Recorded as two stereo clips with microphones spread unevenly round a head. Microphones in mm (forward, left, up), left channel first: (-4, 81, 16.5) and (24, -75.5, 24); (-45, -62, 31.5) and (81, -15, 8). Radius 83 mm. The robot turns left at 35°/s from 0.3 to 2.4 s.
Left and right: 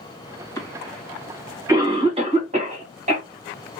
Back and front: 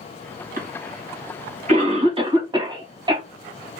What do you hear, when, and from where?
0.6 s a cough: 30° left, 2 m; by 3.2 s 35° right, 2 m